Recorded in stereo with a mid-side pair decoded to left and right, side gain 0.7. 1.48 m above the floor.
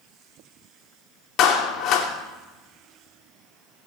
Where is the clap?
50° left, 3 m.